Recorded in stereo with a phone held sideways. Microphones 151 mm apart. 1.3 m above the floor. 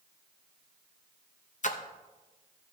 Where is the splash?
55° left (ahead or behind), 0.7 m.